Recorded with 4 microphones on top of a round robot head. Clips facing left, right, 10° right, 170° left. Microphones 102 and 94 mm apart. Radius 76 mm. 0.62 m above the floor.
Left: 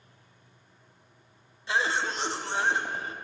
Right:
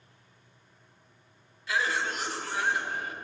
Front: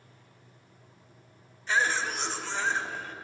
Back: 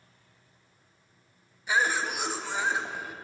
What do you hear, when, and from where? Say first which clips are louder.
1.7 s a cough: left 2 dB, back 1 dB; 100° left, 0.6 m